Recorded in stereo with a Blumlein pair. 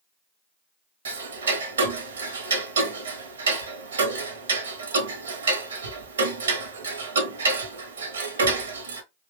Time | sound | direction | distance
1.1 | ticking | 65° right | 0.9 m